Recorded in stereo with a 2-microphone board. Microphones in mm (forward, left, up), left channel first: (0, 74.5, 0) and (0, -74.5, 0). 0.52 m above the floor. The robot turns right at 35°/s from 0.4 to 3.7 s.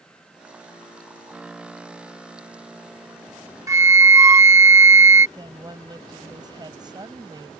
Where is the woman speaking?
30° right (ahead or behind).